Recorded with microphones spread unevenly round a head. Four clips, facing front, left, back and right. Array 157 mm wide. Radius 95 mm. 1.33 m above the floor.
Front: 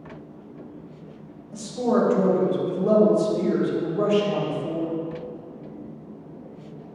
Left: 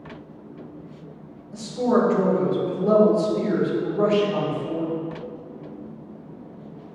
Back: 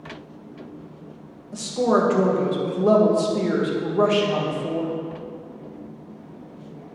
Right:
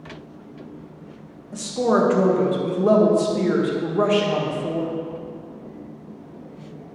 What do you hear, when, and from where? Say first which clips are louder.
1.5 s a woman speaking: right 1 dB, back 2 dB; 150° right, 1.7 m